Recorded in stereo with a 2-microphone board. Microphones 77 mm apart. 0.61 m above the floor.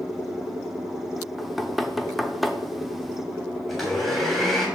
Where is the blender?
5° left (ahead or behind), 3 m.